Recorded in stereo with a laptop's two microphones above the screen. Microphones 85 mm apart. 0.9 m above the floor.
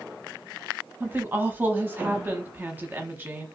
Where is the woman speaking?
25° right (ahead or behind), 0.9 m.